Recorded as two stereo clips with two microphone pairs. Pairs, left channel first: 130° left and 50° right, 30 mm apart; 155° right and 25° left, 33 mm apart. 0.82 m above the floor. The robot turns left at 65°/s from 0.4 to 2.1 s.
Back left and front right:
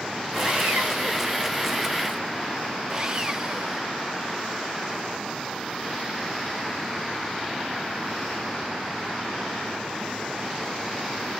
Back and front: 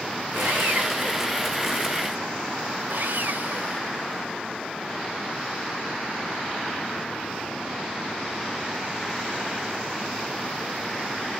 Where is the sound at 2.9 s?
25° left, 0.8 m.